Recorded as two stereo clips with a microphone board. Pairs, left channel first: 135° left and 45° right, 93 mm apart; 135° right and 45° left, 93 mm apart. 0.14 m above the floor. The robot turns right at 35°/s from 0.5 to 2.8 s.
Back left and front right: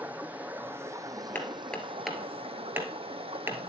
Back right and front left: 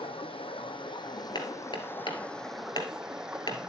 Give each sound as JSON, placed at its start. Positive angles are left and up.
{"t": 0.0, "sound": "running water", "azimuth_deg": -120, "distance_m": 0.9}
{"t": 1.4, "sound": "hammering", "azimuth_deg": -160, "distance_m": 1.6}